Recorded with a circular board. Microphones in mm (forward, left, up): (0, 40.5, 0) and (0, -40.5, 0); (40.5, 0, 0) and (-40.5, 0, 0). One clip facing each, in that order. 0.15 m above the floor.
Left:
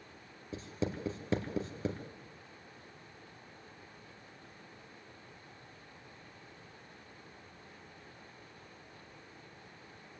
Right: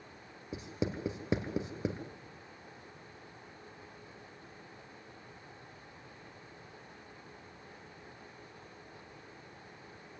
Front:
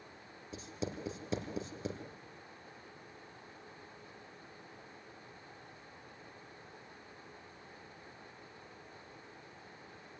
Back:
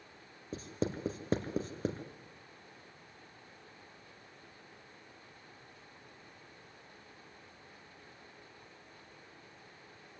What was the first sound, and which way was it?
Writing, 160° right.